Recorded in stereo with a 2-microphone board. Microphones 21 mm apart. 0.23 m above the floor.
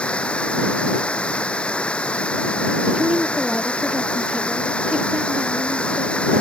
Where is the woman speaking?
35° right (ahead or behind).